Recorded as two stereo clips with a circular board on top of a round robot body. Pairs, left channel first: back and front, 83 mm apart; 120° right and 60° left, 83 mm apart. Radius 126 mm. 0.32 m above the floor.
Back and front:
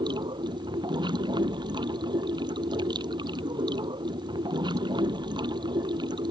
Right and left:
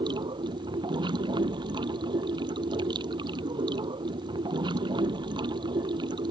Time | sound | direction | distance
0.0 | running water | 30° left | ?